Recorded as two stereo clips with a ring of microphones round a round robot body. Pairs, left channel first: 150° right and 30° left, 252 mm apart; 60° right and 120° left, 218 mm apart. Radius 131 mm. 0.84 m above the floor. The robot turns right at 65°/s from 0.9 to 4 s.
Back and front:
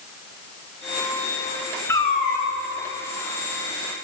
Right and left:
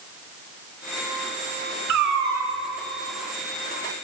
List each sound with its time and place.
1.9 s a cat meowing: 130° left, 1.5 m; by 2.5 s 175° left, 1.5 m